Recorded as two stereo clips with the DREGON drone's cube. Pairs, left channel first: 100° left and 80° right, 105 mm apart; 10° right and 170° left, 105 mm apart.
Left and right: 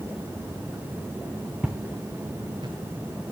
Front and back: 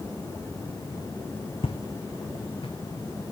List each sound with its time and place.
1.6 s footsteps: straight ahead, 1.4 m; by 2.8 s 40° right, 2.5 m